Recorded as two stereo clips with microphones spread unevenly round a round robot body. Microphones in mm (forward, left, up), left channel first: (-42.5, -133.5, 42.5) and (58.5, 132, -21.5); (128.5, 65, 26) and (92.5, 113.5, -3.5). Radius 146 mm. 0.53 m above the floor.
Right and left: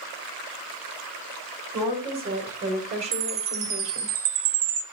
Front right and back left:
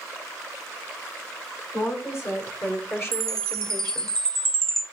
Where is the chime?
25° left, 3.5 m.